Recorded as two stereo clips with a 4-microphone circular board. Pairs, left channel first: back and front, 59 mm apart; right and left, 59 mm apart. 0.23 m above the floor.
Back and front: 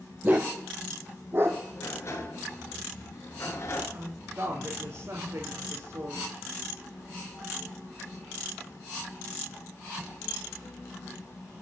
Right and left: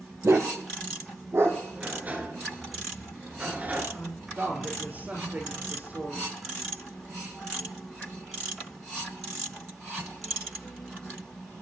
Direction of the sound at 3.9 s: 30° left.